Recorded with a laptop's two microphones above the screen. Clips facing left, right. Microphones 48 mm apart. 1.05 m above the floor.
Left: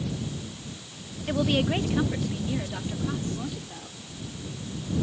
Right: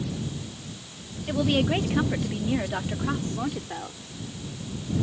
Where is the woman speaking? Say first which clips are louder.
Right 1 dB; 10° left (ahead or behind); by 4.0 s 50° right (ahead or behind).